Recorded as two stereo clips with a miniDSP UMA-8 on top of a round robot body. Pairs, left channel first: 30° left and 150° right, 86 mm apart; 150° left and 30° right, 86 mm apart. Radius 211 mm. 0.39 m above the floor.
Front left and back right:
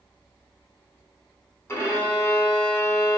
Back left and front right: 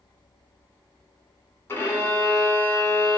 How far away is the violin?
About 1.0 m.